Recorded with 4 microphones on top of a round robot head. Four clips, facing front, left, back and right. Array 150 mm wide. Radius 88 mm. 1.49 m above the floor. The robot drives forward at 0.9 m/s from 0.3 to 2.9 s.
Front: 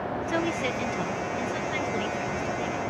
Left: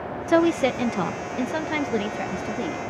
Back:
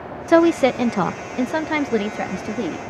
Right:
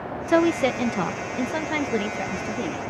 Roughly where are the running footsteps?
No running footsteps in this recording.